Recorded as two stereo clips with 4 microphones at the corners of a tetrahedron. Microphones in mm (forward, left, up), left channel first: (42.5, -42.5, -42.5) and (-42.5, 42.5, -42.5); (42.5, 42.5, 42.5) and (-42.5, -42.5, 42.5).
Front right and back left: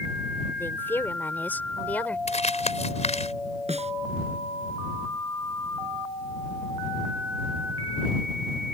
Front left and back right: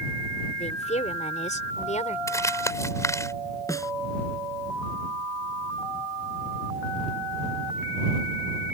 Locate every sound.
0.6 s a woman speaking: 25° left; by 2.2 s 35° left
2.3 s crumpling: 20° right
3.7 s a snare drum: 110° left